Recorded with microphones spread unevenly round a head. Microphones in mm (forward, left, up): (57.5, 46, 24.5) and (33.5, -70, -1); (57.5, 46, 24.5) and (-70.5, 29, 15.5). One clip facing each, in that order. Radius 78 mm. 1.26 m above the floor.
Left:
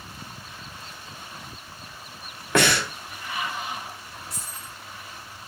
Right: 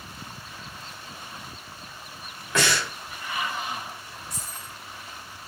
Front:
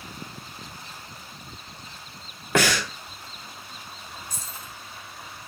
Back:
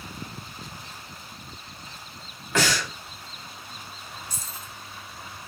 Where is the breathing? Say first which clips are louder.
Left 4 dB, front 2 dB; 45° left, 0.9 m.